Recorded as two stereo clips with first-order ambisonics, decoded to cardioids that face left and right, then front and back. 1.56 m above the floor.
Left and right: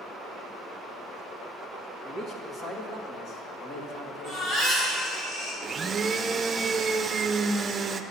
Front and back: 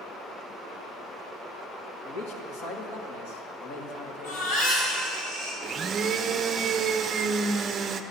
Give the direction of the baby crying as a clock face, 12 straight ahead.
11 o'clock.